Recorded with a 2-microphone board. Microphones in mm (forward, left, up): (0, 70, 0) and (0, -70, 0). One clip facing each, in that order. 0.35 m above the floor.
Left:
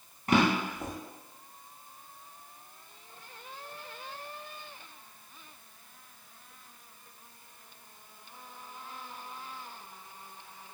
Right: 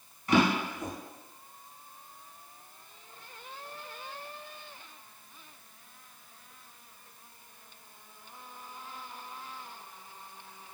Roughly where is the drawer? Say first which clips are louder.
Even; left.